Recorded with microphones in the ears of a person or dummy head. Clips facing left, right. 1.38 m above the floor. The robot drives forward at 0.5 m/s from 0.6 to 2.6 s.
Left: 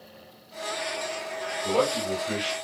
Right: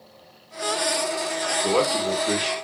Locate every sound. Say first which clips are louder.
1.6 s a man speaking: right 2 dB; 70° right (ahead or behind), 1.6 m; by 2.5 s 60° right (ahead or behind), 1.8 m